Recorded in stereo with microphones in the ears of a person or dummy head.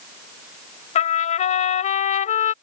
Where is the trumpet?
40° left (ahead or behind).